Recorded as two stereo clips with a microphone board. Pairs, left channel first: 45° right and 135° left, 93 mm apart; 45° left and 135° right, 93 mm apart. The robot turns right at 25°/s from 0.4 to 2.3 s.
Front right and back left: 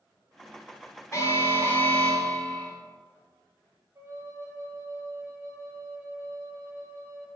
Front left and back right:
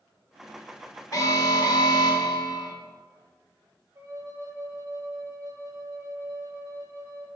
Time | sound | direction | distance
1.1 | an alarm | 5° left | 1.4 m
4.0 | a flute | 175° right | 1.0 m